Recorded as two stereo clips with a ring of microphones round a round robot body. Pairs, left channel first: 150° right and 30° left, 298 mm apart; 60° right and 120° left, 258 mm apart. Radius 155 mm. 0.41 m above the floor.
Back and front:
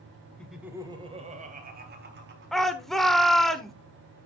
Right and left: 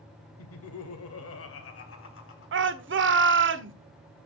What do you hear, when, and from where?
0.4 s laughter: 65° right, 1.7 m; by 2.9 s 20° right, 4.5 m
2.5 s a shout: 120° left, 1.2 m